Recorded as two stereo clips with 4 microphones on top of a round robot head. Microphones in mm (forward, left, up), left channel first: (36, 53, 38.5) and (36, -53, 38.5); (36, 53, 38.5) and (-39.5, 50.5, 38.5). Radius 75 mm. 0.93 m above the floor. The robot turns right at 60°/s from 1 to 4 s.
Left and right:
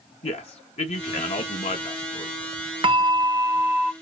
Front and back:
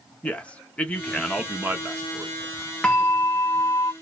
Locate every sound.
0.2 s a man speaking: 75° left, 0.8 m; by 2.3 s 155° left, 0.8 m
2.8 s a bell: 75° right, 0.7 m; by 3.9 s 10° right, 0.7 m